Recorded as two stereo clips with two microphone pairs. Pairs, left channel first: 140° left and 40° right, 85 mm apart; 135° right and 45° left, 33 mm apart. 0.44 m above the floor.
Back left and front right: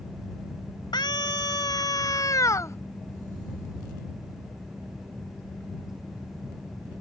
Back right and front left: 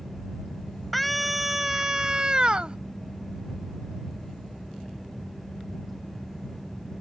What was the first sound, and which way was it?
A scream, 135° left.